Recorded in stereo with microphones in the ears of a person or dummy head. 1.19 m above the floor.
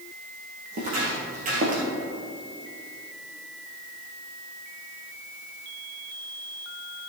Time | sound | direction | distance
0.7 | footsteps | 45° right (ahead or behind) | 2.5 m